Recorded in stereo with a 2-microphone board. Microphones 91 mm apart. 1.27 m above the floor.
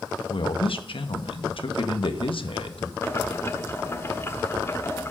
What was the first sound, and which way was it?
A man speaking, 75° left (ahead or behind).